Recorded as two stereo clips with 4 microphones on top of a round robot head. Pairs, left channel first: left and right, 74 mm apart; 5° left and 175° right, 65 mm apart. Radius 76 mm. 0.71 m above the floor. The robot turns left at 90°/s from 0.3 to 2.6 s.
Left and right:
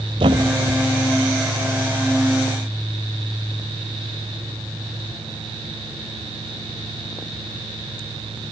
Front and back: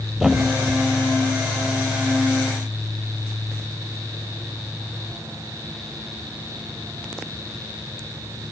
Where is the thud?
90° right, 1.0 m; by 0.8 s 135° right, 1.0 m.